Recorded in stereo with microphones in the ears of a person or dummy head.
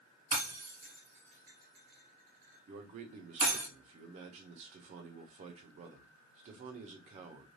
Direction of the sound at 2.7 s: 35° right (ahead or behind).